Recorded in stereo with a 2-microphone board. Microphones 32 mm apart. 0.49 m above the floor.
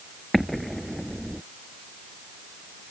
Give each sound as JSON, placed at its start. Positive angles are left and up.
{"t": 0.3, "sound": "an explosion", "side_deg": -5}